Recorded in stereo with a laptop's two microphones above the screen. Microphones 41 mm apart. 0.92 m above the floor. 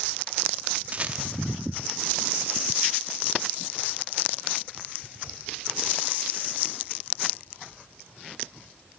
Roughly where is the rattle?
Right.